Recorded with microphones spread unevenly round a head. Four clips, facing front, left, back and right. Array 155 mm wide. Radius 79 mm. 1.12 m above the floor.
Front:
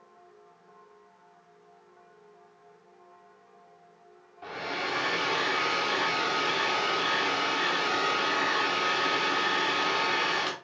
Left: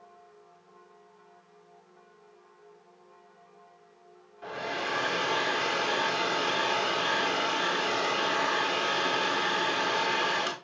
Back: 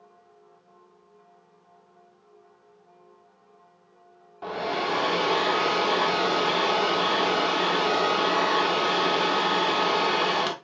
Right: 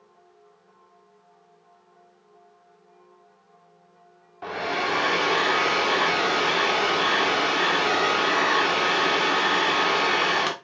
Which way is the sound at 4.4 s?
140° right.